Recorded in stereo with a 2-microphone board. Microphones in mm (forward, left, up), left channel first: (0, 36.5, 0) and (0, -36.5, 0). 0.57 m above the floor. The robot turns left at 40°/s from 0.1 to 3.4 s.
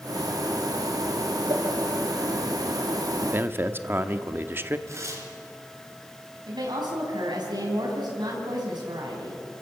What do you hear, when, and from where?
1.5 s a whoosh: 80° right, 4.5 m; by 1.6 s 75° right (ahead or behind), 4.5 m
3.2 s a man speaking: 30° right (ahead or behind), 1.0 m
4.9 s tearing paper: 40° right (ahead or behind), 5 m
6.5 s a woman speaking: 75° right (ahead or behind), 4.5 m